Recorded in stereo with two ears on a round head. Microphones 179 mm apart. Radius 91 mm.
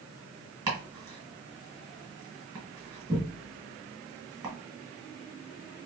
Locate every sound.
0.7 s chopping: 15° right (ahead or behind), 1.6 m